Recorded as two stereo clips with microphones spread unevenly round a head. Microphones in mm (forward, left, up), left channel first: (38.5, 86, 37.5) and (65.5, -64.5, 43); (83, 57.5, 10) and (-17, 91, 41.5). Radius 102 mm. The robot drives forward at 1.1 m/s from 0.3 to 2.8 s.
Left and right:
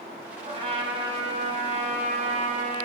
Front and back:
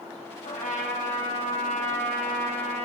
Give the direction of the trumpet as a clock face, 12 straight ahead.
1 o'clock.